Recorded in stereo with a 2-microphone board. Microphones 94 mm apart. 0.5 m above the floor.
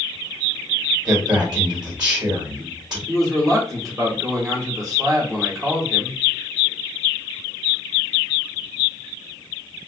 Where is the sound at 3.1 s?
35° right (ahead or behind), 1.2 m.